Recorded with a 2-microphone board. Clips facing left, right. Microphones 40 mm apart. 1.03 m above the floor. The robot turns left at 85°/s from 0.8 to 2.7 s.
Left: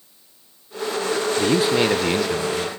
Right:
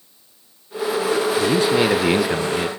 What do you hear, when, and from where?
1.4 s a man speaking: 40° left, 0.7 m; by 2.7 s 70° right, 0.7 m